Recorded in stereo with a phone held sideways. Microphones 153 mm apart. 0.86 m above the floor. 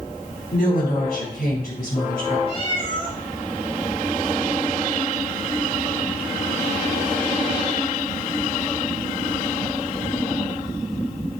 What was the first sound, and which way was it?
A woman speaking, 75° left (ahead or behind).